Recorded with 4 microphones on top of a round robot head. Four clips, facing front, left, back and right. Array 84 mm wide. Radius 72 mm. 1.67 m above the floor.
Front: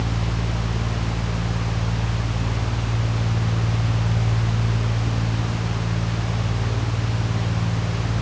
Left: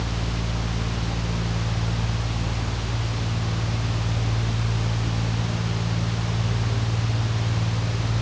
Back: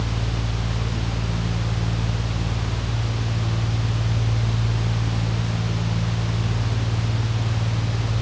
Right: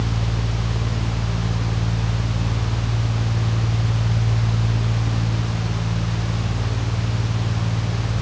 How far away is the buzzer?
I don't hear a buzzer.